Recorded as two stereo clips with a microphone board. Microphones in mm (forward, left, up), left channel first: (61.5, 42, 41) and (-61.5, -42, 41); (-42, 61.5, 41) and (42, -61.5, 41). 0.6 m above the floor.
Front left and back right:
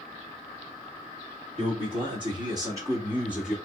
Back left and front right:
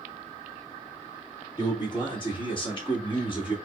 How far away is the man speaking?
About 2 m.